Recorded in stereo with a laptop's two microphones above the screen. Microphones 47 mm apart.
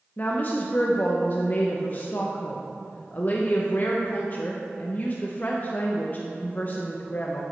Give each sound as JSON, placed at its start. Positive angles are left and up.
{"t": 0.2, "sound": "a woman speaking", "side_deg": 40, "distance_m": 0.6}